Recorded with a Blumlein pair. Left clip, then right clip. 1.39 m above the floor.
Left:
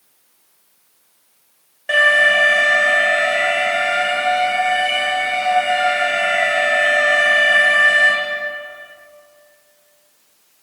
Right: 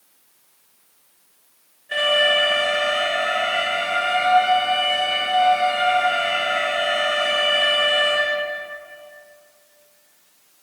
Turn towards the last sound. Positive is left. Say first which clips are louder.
# left 5 dB
turn(degrees=45)